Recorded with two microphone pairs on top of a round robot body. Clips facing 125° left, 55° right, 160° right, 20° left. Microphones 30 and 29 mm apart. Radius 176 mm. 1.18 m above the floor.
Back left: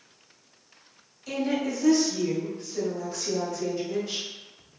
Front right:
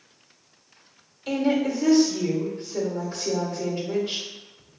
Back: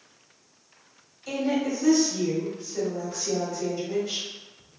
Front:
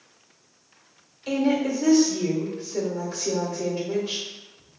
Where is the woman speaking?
15° right, 1.7 m.